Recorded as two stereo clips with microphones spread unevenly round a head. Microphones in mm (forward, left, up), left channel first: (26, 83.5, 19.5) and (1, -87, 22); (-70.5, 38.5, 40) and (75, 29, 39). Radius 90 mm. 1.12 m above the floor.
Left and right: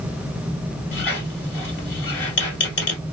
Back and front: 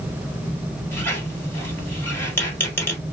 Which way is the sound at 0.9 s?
105° left.